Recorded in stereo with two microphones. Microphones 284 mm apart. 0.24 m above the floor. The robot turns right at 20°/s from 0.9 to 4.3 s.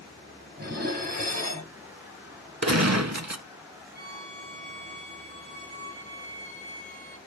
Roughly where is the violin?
Left.